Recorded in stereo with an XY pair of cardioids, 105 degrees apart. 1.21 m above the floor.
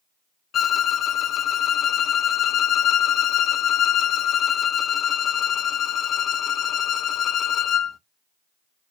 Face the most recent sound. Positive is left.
turn(degrees=55)